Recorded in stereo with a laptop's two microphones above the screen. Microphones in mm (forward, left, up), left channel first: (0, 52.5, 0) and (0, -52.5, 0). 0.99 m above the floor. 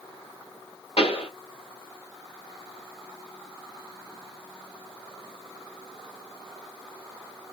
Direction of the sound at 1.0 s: 65° left (ahead or behind).